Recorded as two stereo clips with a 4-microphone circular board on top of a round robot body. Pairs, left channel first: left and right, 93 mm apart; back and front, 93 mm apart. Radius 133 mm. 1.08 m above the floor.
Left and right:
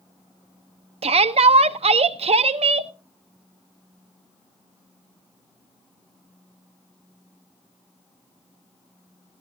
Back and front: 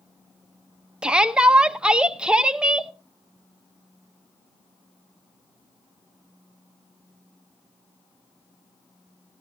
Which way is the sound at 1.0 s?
80° right.